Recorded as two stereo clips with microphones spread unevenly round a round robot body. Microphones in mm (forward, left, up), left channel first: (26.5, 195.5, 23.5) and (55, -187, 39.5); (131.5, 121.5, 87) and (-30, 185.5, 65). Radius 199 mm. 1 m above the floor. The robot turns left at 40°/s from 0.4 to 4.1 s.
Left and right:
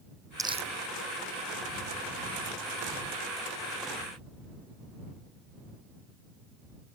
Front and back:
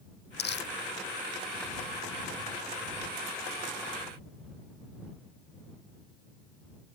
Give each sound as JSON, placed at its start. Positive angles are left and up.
{"t": 0.4, "sound": "crumpling", "azimuth_deg": -5}